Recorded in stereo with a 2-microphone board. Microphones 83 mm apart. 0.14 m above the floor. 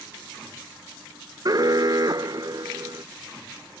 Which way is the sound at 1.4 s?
45° right (ahead or behind).